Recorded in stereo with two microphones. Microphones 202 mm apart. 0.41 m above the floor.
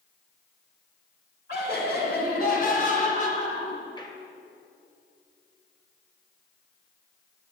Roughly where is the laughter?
Left.